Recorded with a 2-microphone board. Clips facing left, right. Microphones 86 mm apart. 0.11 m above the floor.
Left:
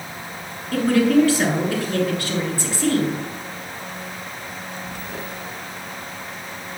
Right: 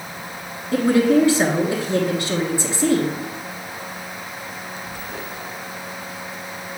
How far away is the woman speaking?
About 1.2 m.